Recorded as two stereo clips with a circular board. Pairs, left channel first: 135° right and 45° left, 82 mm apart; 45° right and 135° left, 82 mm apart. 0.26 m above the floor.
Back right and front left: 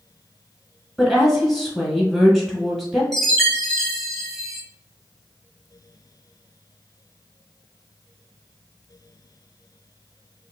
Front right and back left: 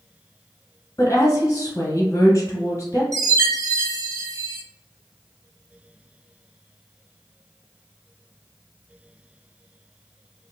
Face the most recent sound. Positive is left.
turn(degrees=140)